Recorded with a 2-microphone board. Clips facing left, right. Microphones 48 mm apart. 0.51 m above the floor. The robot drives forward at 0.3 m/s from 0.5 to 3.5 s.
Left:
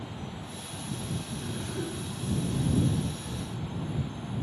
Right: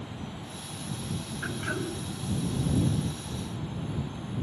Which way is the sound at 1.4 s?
75° right (ahead or behind).